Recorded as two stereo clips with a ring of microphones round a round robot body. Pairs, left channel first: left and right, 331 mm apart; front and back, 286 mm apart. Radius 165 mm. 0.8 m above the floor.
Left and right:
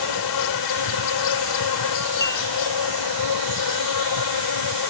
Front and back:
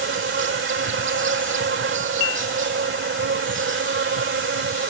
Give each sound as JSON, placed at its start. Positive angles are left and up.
{"t": 0.0, "sound": "an insect", "azimuth_deg": 125}
{"t": 2.2, "sound": "dishes clattering", "azimuth_deg": 10}